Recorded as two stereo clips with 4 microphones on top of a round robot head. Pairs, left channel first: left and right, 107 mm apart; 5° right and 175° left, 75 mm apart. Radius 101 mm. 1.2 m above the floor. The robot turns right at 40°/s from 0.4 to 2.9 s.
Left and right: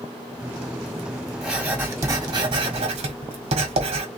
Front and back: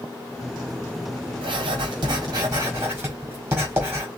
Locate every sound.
1.4 s writing: straight behind, 1.6 m; by 4.1 s 120° right, 1.6 m